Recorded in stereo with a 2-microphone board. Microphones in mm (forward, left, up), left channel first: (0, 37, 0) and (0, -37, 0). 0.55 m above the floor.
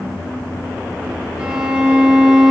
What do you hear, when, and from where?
1.4 s a violin: 10° right (ahead or behind), 6.5 m